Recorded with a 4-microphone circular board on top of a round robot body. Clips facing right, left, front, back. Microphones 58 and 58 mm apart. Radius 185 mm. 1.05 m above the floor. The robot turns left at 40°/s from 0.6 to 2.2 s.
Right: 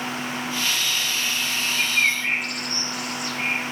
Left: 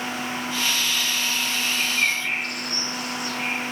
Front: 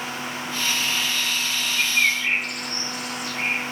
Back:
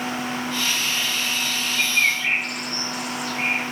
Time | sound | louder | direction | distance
1.8 | a bird | right 3 dB, even | 75° right | 1.0 m